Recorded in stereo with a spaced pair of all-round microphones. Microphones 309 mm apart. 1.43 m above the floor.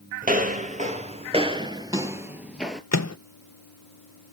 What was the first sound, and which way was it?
Footsteps, 25° right (ahead or behind).